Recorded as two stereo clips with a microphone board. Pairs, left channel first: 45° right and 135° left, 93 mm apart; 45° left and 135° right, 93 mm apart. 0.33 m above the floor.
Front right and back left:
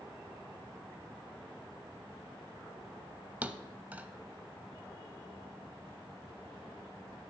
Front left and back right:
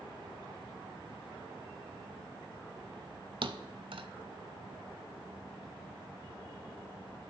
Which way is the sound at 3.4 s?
155° right.